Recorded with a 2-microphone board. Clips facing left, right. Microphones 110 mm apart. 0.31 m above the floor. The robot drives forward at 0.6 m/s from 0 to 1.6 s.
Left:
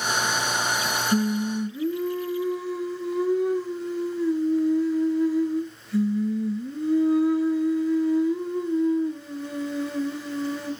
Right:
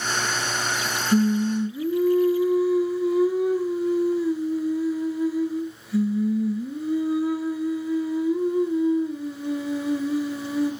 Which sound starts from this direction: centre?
Singing, at 1.1 s.